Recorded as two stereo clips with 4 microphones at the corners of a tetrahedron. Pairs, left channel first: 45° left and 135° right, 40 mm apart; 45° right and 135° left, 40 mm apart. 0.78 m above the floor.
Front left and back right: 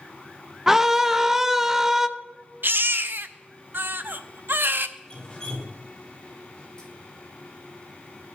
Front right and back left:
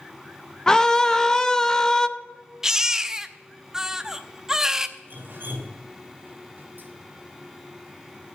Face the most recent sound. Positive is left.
turn(degrees=115)